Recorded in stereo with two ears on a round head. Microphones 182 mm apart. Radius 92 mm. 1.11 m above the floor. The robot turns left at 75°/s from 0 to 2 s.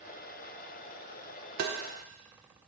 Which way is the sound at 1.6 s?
50° right (ahead or behind).